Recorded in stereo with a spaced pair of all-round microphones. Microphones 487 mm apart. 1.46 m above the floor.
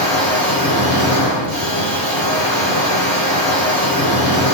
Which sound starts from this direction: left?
A machine running, at 0.0 s.